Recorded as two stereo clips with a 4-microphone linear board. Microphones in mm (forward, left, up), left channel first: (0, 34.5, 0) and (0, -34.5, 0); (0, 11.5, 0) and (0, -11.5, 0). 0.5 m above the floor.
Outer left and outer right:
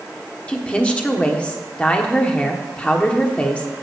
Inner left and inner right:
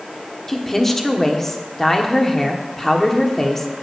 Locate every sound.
0.5 s a woman speaking: 20° left (ahead or behind), 1.1 m